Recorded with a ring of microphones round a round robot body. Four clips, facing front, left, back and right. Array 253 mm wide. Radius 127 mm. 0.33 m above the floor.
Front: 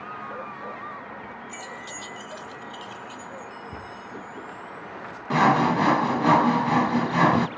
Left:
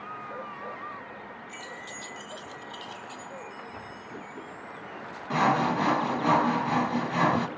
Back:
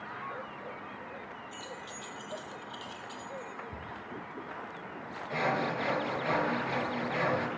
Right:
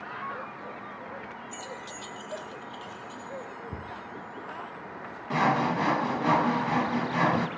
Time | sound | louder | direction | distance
1.5 | keys jangling | right 2 dB, front 5 dB | 35° right | 1.4 m
3.7 | a cupboard door | right 2 dB, front 5 dB | 75° right | 2 m
5.3 | sawing | left 1 dB, front 12 dB | 5° left | 0.7 m